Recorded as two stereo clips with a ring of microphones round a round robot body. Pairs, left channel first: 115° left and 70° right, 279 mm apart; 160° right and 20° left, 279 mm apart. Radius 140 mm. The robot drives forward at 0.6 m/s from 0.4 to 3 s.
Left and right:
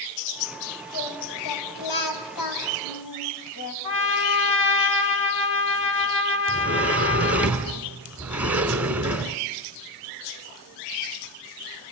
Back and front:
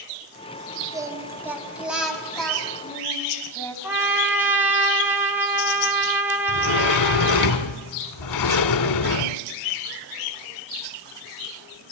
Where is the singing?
100° left, 3.5 m; by 3.7 s 120° left, 4 m.